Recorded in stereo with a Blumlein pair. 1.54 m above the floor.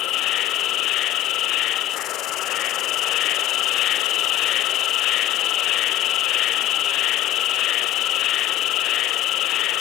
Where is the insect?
35° left, 0.7 m.